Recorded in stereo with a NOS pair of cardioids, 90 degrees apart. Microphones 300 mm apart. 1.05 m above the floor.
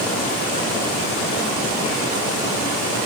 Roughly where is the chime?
I don't hear a chime.